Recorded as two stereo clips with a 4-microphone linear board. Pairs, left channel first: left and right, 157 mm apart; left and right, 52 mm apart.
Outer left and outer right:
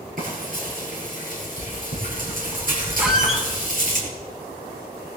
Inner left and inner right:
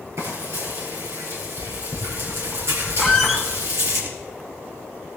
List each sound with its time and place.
0.2 s frying: 60° right (ahead or behind), 6.5 m
3.0 s a squeak: 5° right (ahead or behind), 1.6 m